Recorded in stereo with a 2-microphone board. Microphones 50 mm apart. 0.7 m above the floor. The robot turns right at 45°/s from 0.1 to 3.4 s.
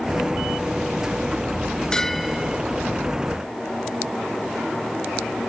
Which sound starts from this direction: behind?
A bell, at 1.9 s.